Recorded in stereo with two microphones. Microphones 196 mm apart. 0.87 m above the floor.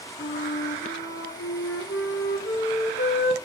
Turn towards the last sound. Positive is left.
turn(degrees=75)  # may be behind; listen again after turning